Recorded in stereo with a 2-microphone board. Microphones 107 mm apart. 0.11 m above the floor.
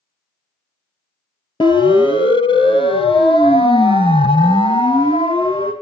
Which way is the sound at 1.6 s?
50° left (ahead or behind).